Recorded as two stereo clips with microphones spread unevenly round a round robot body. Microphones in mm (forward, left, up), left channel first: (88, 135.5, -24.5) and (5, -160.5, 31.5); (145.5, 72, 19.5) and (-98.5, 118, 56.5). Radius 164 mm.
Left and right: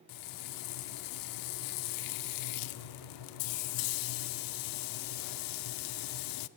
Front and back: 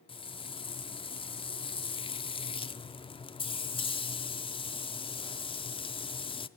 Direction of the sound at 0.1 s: 60° left.